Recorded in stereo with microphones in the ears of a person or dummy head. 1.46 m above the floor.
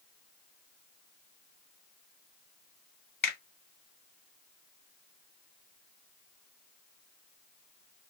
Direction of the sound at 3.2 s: 15° left (ahead or behind).